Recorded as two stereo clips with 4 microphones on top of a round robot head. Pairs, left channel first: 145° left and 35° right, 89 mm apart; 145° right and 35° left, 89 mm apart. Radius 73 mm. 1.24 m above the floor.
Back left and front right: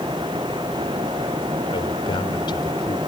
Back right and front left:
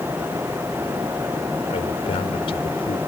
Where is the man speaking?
175° right.